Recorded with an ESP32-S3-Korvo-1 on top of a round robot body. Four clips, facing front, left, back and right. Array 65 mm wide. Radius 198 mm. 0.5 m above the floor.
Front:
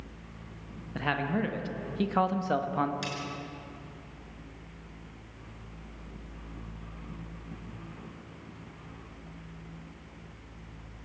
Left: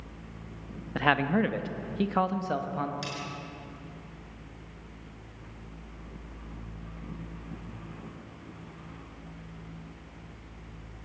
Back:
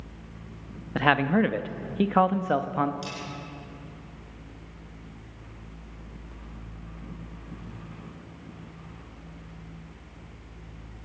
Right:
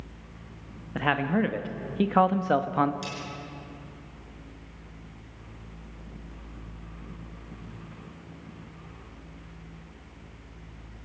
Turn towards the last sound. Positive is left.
turn(degrees=25)